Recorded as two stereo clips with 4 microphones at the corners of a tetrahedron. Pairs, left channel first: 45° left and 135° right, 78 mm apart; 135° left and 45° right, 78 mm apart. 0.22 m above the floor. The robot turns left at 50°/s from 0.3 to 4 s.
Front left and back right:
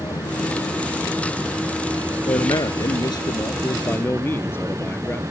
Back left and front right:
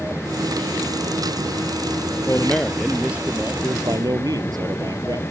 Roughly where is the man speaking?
Left.